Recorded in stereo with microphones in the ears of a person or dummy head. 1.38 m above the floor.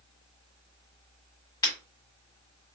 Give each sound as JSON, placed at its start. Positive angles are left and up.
{"t": 1.6, "sound": "breaking glass", "side_deg": 20, "distance_m": 1.6}